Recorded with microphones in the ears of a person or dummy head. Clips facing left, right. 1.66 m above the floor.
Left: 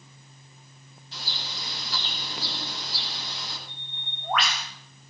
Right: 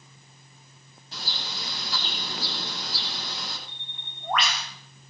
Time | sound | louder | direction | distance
1.1 | a bird | right 2 dB | 40° right (ahead or behind) | 9.5 m
3.7 | a bird | left 2 dB | centre (ahead or behind) | 6.5 m